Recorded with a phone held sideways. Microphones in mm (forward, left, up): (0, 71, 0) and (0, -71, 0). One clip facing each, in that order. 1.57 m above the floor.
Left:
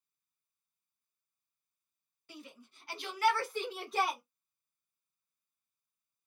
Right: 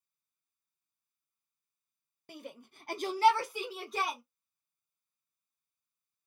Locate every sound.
2.3 s a shout: 50° right (ahead or behind), 0.8 m; by 4.2 s 5° left (ahead or behind), 1.2 m